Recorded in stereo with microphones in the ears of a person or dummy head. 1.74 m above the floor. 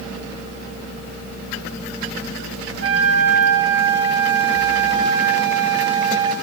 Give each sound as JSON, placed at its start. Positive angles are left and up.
{"t": 2.8, "sound": "a flute", "side_deg": -75, "distance_m": 1.4}